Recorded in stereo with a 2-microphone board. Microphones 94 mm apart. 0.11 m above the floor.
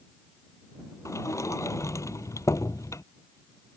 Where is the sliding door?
35° left (ahead or behind).